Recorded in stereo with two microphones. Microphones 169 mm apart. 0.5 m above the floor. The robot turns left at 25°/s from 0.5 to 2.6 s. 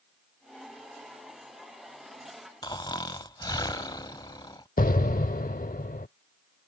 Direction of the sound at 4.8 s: 55° left (ahead or behind).